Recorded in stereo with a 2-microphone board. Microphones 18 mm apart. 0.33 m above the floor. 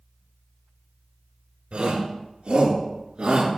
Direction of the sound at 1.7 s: 80° right.